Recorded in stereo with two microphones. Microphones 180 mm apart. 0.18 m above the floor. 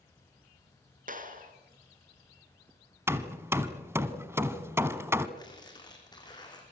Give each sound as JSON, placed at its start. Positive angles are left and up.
{"t": 1.1, "sound": "a clap", "side_deg": -50, "distance_m": 2.5}
{"t": 3.1, "sound": "hammering", "side_deg": -15, "distance_m": 1.2}
{"t": 5.4, "sound": "tearing paper", "side_deg": 25, "distance_m": 5.5}